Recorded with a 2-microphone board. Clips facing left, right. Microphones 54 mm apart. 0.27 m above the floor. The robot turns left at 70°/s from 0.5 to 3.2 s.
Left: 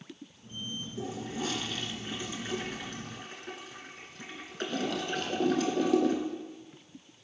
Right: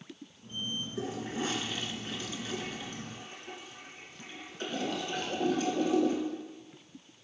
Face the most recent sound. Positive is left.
turn(degrees=85)